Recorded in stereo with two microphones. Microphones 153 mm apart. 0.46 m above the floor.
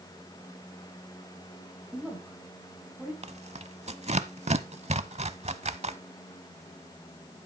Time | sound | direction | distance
1.9 | a woman speaking | 5° left (ahead or behind) | 3.5 m
3.2 | tearing paper | 45° right (ahead or behind) | 0.7 m